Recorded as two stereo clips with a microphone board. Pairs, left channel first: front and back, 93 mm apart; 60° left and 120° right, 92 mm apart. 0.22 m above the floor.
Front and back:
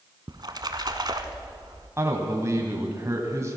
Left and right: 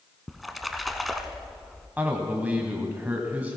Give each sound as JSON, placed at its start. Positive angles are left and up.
{"t": 0.3, "sound": "a splash", "azimuth_deg": 150, "distance_m": 1.0}
{"t": 2.0, "sound": "a man speaking", "azimuth_deg": -175, "distance_m": 1.3}